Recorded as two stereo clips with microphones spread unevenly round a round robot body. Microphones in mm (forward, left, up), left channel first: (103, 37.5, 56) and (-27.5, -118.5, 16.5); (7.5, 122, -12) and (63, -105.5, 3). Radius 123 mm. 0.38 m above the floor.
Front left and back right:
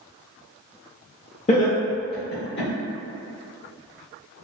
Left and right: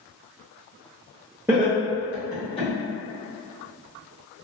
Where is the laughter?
Straight ahead, 1.4 m; by 2.7 s 50° left, 1.7 m.